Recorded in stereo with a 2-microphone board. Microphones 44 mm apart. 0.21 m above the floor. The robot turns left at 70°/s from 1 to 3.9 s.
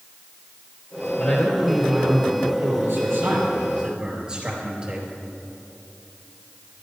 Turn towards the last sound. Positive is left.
turn(degrees=-155)